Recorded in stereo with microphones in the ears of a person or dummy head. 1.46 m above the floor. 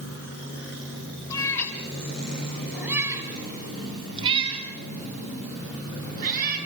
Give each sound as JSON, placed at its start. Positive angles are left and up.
{"t": 1.3, "sound": "a cat meowing", "side_deg": 20, "distance_m": 4.5}